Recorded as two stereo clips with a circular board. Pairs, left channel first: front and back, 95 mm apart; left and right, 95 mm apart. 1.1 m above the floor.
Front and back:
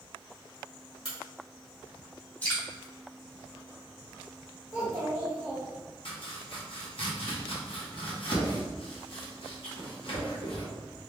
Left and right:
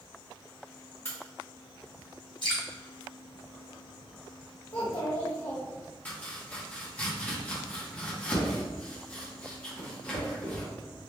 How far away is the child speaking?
About 1.0 m.